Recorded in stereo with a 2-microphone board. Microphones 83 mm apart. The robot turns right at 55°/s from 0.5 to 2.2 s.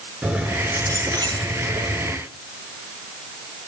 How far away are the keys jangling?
About 6.5 m.